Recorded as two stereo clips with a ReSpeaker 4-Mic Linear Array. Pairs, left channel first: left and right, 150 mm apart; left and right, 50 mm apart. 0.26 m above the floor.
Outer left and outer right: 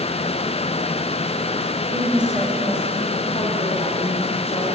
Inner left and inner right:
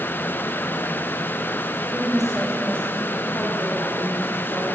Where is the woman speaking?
20° right (ahead or behind), 1.5 m; by 4.7 s 60° left (ahead or behind), 3 m.